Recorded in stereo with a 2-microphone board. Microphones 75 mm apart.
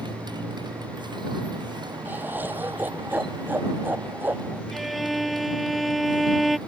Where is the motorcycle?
80° right; by 6.7 s 75° right (ahead or behind).